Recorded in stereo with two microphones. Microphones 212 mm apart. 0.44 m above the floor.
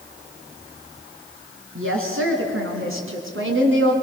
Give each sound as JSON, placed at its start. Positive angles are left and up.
{"t": 1.8, "sound": "a woman speaking", "side_deg": -80, "distance_m": 4.5}